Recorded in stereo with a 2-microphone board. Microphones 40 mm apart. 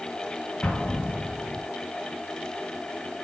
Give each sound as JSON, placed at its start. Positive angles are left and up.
{"t": 0.6, "sound": "an explosion", "side_deg": 25, "distance_m": 4.0}